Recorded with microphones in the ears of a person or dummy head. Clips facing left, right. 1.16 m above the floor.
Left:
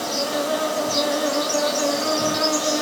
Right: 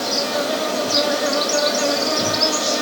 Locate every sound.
0.0 s an insect: 50° right (ahead or behind), 2.5 m